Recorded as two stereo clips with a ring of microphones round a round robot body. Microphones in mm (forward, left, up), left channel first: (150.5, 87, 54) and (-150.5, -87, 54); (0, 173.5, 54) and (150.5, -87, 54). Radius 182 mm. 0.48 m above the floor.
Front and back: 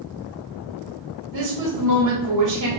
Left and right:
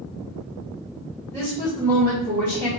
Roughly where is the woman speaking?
Behind.